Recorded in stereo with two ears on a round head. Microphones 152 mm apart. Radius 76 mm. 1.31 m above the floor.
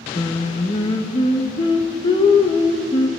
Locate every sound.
0.1 s singing: 25° left (ahead or behind), 0.6 m